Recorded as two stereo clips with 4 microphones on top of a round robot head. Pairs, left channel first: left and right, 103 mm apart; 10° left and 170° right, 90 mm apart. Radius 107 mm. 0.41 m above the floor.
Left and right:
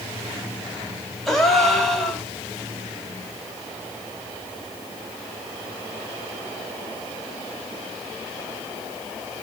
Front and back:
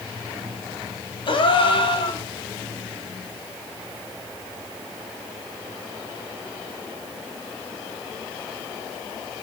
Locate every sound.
1.3 s a gasp: 5° left, 1.9 m